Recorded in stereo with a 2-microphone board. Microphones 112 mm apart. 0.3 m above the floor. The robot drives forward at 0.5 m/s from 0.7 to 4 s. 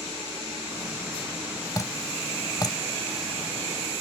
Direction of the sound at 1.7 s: 30° left (ahead or behind).